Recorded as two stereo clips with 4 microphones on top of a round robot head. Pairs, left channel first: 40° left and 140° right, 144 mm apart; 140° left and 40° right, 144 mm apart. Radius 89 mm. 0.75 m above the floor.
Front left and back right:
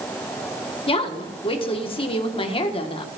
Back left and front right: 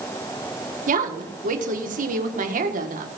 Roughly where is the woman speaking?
Ahead.